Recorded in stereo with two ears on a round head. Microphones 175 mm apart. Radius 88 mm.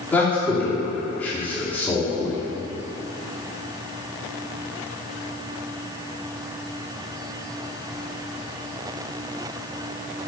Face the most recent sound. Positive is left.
turn(degrees=10)  # may be behind; listen again after turning